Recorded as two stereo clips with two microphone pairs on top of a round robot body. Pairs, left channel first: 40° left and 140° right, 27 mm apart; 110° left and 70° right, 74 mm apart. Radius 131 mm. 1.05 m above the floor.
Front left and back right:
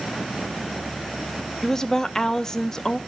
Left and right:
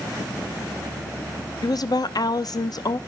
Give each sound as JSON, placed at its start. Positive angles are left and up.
{"t": 1.6, "sound": "a woman speaking", "azimuth_deg": 105, "distance_m": 1.0}